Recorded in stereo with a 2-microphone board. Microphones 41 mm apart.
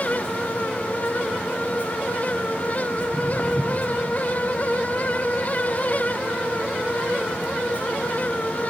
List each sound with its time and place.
3.0 s footsteps: 5° left (ahead or behind), 1.1 m; by 8.0 s 25° right (ahead or behind), 3.5 m